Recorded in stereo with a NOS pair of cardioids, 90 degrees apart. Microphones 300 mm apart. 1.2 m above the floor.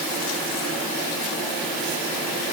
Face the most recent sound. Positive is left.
No sound to turn to.